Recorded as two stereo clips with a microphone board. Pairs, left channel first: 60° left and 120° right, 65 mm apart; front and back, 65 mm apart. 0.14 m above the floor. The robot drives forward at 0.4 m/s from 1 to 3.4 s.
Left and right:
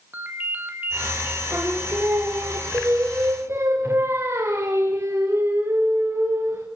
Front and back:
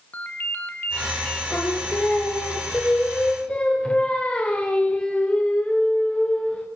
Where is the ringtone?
60° right, 2.5 m.